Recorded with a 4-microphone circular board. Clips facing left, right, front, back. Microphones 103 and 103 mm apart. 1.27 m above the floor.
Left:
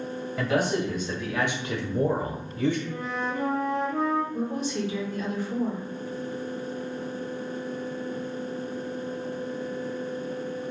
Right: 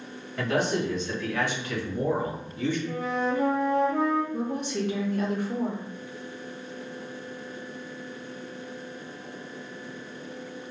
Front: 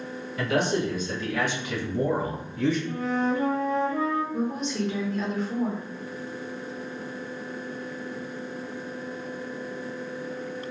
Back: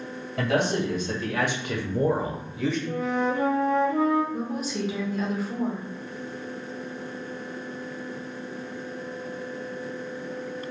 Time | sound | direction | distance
0.4 | a man speaking | 175° left | 1.8 m
2.9 | a flute | 155° right | 1.1 m
4.3 | a woman speaking | 95° right | 0.8 m